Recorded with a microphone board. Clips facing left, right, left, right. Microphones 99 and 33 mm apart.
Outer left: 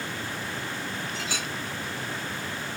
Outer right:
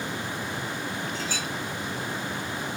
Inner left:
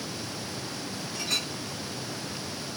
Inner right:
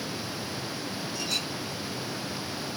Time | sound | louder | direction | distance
1.1 | a clink | outer right 1 dB, inner left 2 dB | 65° left (ahead or behind) | 5 m